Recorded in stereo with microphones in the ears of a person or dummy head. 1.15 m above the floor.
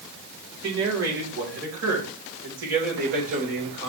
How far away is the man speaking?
About 3 m.